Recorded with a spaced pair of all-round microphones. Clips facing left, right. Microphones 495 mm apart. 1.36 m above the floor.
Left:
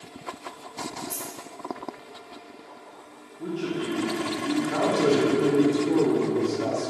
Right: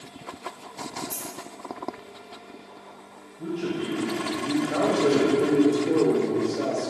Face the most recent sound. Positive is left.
turn(degrees=15)  # may be behind; listen again after turning